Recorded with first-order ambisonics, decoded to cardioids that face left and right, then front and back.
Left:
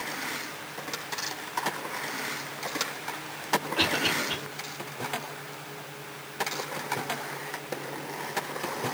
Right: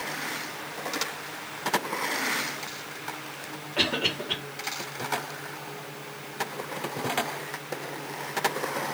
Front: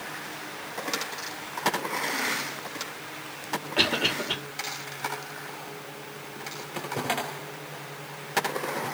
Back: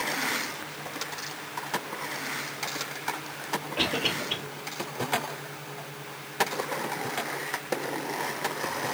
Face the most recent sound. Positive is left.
turn(degrees=-15)